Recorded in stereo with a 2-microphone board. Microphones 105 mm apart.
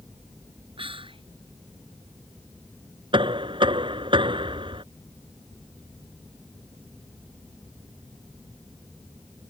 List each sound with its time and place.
0.8 s whispering: 55° right (ahead or behind)
3.1 s knocking: 55° right (ahead or behind)